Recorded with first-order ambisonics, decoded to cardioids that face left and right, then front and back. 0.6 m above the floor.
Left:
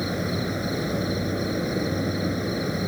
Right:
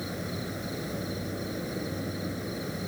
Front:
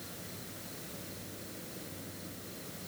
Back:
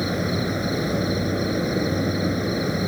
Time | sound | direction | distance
0.0 | an insect | 155° left | ?